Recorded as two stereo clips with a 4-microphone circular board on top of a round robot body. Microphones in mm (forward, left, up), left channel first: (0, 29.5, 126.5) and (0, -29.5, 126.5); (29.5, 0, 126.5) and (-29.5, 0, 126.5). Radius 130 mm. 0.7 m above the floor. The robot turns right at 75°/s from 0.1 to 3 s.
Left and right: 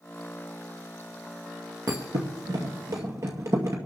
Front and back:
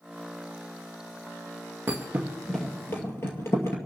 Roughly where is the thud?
Behind right.